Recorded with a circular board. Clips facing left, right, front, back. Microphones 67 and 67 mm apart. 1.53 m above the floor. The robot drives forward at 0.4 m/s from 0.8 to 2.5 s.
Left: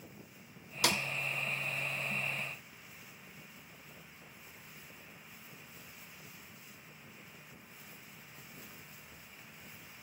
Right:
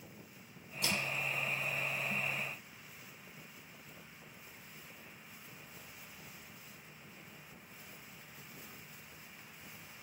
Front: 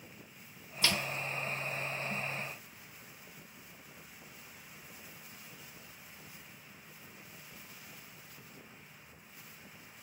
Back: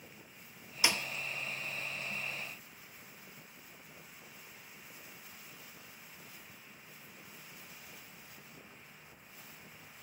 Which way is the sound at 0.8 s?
105° left.